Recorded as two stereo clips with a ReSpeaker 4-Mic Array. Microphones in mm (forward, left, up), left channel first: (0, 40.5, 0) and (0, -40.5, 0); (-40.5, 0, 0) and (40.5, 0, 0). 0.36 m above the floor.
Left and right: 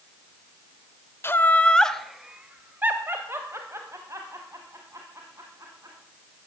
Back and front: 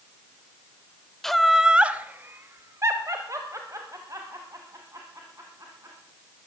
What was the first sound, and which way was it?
Laughter, 100° left.